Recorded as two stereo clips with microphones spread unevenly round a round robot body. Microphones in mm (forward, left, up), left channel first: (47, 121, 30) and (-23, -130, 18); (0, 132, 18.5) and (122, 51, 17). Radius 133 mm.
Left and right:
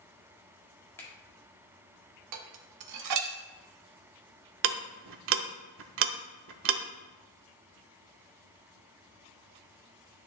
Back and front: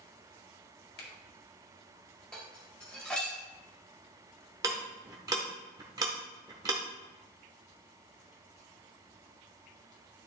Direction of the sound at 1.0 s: 155° left.